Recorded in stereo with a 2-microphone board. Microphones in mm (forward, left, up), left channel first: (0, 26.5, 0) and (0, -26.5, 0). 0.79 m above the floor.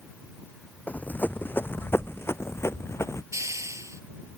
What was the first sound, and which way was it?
Running footsteps, 35° left (ahead or behind).